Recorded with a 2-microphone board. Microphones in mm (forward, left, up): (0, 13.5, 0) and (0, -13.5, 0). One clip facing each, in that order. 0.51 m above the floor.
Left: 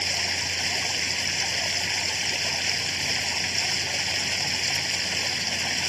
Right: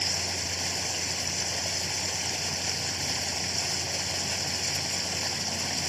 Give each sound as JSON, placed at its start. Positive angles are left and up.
{"t": 0.0, "sound": "running water", "side_deg": 35}